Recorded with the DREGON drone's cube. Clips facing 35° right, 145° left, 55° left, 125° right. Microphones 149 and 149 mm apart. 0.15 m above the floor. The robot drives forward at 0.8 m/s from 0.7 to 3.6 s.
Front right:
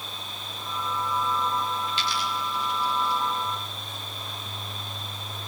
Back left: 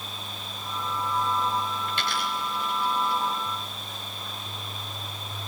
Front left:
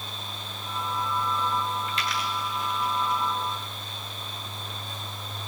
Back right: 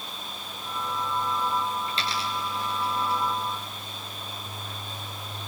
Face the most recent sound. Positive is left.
turn(degrees=180)